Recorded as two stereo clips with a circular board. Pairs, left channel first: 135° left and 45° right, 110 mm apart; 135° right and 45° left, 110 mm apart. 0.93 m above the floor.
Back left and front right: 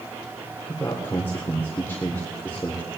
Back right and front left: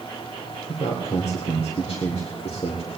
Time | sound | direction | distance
0.7 | a man speaking | 155° right | 3 m